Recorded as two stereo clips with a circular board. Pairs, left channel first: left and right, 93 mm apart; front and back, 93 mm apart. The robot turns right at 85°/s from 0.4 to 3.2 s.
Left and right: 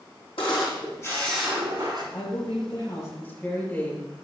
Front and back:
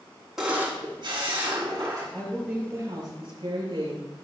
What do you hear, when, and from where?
0.4 s a camera shutter: 95° left, 3.5 m; by 2.0 s 125° right, 3.5 m
2.1 s a woman speaking: 70° left, 6 m; by 4.1 s 165° left, 6 m